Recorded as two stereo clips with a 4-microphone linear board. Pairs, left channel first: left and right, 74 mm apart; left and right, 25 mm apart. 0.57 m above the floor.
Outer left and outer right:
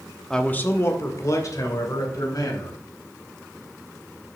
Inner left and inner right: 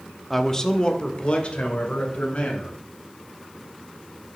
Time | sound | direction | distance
0.3 | a man speaking | 5° left (ahead or behind) | 0.8 m